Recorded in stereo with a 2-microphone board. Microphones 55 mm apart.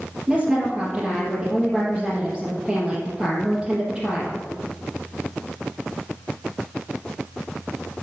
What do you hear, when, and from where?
0.3 s a woman speaking: 15° right (ahead or behind), 2.5 m